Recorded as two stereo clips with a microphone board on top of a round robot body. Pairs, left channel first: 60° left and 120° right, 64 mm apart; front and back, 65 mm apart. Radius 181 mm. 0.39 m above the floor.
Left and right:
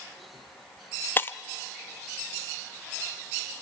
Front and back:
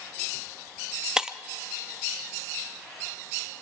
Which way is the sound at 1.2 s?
105° left.